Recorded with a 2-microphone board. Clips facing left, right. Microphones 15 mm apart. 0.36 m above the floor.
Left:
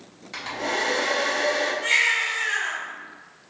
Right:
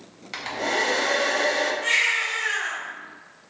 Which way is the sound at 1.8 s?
Centre (ahead or behind).